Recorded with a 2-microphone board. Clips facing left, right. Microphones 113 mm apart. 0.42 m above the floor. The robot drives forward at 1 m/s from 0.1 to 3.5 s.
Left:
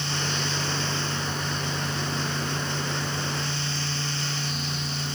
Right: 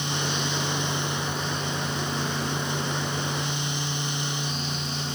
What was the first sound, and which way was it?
Only background noise.